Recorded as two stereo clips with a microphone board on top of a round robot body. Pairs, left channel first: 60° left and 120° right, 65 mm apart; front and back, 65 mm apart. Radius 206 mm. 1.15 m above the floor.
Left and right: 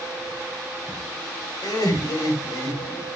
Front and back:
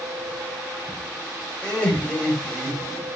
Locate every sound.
1.6 s laughter: 70° left, 6 m